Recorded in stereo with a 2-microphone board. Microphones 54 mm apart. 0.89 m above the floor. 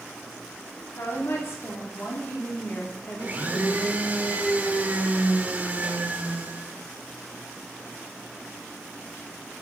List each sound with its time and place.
0.9 s a woman speaking: 60° left (ahead or behind), 3 m; by 3.9 s 20° left (ahead or behind), 3 m
3.2 s a blender: 30° right (ahead or behind), 1.2 m